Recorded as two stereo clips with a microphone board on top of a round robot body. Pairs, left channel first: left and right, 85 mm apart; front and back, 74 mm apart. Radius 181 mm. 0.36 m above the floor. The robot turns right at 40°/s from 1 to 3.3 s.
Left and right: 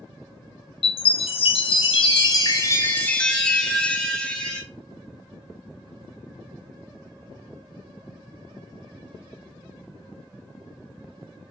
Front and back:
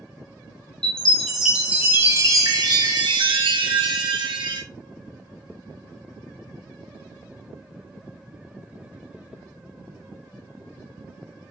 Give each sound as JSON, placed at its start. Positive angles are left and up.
{"t": 0.8, "sound": "a chime", "azimuth_deg": 80, "distance_m": 0.5}